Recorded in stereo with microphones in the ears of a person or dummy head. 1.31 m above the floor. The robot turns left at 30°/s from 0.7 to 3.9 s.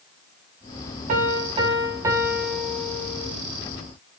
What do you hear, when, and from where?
1.1 s a piano: 130° right, 3 m; by 3.3 s 160° left, 3 m